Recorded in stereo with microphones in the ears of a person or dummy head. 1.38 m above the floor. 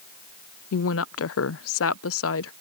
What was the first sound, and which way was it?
A woman speaking, 70° left (ahead or behind).